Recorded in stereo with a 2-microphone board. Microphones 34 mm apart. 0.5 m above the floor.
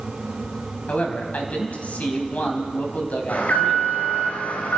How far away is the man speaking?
About 4 m.